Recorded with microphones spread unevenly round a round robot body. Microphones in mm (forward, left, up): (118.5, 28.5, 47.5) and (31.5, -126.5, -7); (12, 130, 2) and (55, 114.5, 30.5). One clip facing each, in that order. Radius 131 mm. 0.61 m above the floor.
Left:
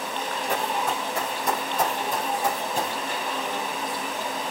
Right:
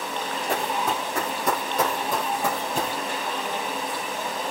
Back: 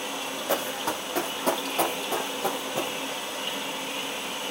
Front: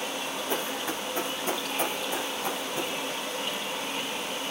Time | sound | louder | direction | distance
0.5 | running footsteps | right 1 dB, back 5 dB | 165° left | 2 m